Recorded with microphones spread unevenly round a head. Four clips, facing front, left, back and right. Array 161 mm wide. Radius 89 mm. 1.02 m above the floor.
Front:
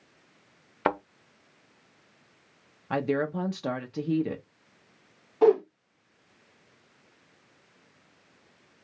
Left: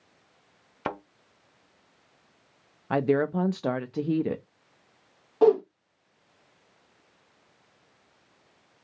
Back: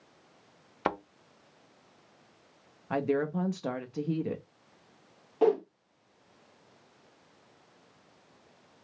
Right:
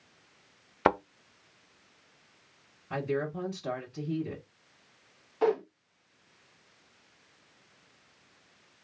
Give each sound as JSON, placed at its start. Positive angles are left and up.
{"t": 0.8, "sound": "a thud", "azimuth_deg": -75, "distance_m": 0.5}
{"t": 2.9, "sound": "a woman speaking", "azimuth_deg": 65, "distance_m": 0.6}
{"t": 5.4, "sound": "a whoosh", "azimuth_deg": 115, "distance_m": 1.1}